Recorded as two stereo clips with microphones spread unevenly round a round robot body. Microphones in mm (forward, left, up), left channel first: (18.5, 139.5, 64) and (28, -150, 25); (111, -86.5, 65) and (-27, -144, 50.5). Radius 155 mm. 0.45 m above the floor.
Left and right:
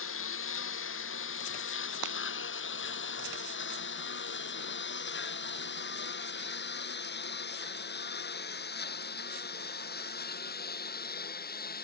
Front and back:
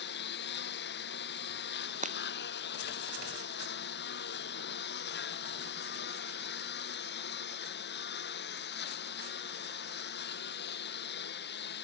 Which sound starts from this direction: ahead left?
A lawn mower, at 0.0 s.